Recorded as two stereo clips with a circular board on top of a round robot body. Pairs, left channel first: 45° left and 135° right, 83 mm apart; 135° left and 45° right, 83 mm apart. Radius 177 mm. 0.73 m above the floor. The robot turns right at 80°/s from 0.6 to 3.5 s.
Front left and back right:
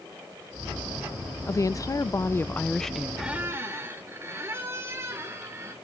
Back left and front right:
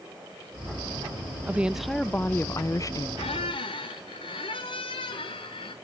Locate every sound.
1.5 s a woman speaking: 15° left, 0.6 m; by 3.1 s 145° left, 0.6 m
3.2 s a squeak: 135° left, 0.7 m; by 5.7 s 160° left, 0.7 m